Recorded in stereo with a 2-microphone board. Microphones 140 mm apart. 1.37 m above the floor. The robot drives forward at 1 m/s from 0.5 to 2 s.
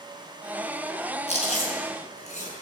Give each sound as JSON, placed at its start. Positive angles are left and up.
{"t": 1.3, "sound": "chewing", "side_deg": 50, "distance_m": 4.5}